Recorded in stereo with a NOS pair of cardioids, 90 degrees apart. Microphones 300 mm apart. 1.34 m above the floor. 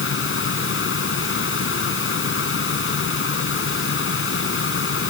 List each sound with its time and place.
0.0 s a fan: 45° left